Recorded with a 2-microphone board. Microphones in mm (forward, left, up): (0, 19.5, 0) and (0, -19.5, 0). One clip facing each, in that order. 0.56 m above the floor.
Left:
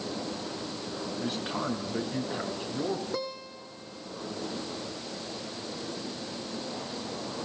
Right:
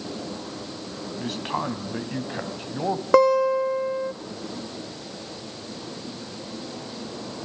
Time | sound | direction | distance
1.2 | a man speaking | 80° right | 3.5 m
3.1 | a guitar | 70° right (ahead or behind) | 0.6 m